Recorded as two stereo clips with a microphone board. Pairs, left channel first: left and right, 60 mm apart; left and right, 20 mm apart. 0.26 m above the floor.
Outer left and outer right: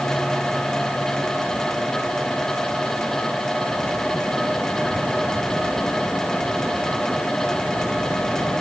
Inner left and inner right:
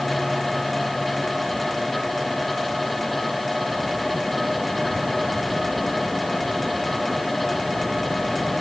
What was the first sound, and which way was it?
Only background noise.